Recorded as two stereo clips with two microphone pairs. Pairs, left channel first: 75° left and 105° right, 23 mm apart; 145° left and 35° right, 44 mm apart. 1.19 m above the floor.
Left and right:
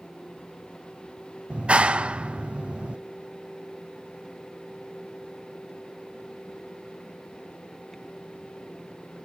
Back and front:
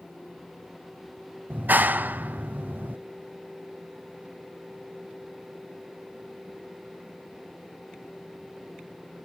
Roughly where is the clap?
Right.